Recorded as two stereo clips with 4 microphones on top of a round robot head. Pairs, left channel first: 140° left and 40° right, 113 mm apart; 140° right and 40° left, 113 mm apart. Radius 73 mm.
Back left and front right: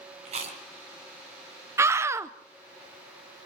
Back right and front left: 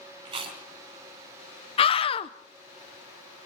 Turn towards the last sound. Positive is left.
turn(degrees=-105)